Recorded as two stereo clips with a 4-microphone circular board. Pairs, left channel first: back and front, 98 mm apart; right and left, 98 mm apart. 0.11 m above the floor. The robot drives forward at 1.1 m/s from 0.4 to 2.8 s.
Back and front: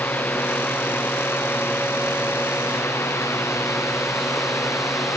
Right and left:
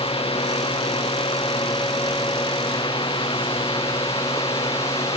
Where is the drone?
110° right; by 5.2 s 115° right.